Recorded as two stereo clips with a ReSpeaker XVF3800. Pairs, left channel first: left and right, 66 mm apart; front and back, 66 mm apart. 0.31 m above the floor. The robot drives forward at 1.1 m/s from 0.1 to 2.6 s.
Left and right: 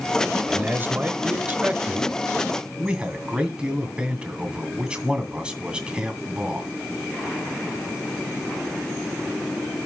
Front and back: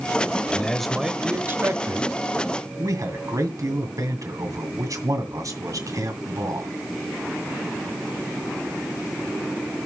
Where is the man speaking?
50° right, 1.2 m; by 6.7 s 165° right, 2 m.